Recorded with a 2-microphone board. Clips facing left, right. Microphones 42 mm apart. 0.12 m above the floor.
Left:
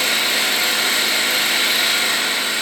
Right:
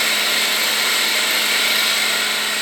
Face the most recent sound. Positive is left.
turn(degrees=35)  # may be behind; listen again after turning